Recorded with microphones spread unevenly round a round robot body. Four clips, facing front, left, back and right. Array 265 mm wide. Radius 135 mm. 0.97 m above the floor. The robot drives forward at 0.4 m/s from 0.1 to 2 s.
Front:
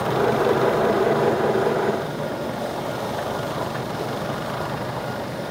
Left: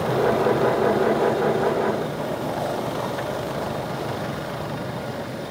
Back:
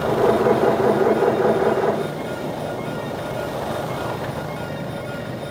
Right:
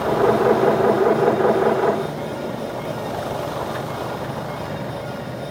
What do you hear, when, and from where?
Only background noise.